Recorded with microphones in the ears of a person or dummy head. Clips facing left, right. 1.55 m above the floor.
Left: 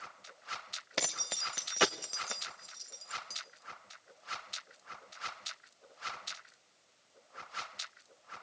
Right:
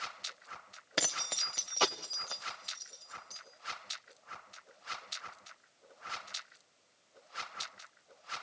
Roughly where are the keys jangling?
Centre.